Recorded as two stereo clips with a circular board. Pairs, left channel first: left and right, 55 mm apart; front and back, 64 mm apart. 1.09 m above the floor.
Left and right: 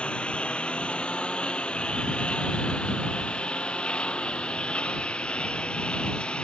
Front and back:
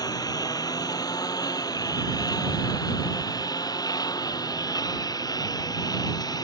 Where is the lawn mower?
20° left.